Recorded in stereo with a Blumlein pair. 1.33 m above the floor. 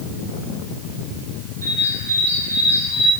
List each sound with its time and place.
1.6 s a bird: 70° right, 6 m